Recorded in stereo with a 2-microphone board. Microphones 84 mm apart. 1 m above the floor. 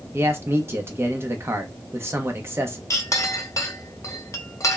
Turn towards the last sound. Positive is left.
turn(degrees=40)  # may be behind; listen again after turning